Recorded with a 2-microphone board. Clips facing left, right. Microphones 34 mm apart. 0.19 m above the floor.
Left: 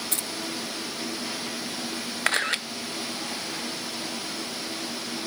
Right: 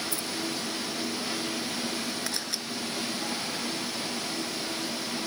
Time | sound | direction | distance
0.1 | keys jangling | 65° left (ahead or behind) | 2 m
2.3 | a camera shutter | 50° left (ahead or behind) | 0.8 m